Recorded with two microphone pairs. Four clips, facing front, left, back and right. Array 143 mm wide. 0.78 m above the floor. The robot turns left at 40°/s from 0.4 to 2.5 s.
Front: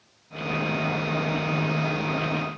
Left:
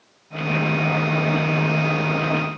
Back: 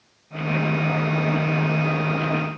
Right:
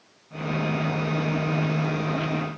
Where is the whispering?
I don't hear whispering.